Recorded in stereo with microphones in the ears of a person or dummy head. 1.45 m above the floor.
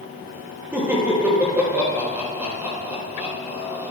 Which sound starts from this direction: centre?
Laughter, at 0.7 s.